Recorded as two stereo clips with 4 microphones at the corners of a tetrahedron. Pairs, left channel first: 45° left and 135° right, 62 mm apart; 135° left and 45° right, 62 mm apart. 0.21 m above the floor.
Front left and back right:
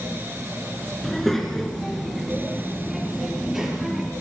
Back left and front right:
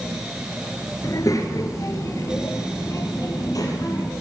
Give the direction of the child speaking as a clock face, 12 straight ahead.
8 o'clock.